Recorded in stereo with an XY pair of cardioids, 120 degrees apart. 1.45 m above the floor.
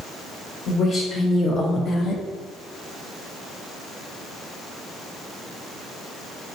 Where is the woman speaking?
50° left, 1.5 m; by 2.2 s 55° left, 0.6 m.